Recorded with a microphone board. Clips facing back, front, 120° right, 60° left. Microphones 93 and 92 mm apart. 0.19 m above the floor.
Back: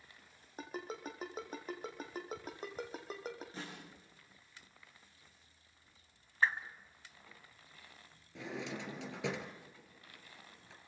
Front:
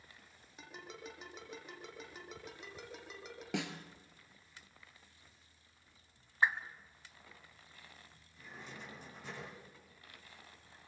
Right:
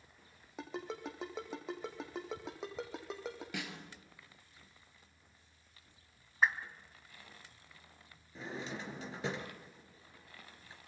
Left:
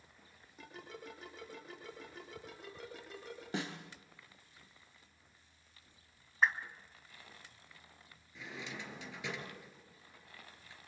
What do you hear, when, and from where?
0.6 s a ringtone: 130° right, 3.5 m
3.5 s a snare drum: 5° left, 2 m
6.4 s a whoosh: 35° right, 1.4 m
8.3 s a drawer: 175° right, 2.5 m